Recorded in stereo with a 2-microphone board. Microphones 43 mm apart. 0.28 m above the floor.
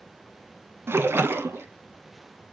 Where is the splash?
70° right (ahead or behind), 0.8 m.